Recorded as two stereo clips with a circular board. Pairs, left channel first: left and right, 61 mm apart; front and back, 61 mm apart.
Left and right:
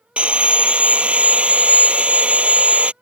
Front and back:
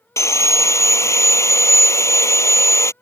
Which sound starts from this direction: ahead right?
Sawing, at 0.2 s.